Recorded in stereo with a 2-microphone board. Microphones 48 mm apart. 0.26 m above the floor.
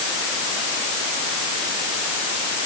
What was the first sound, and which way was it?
Only background noise.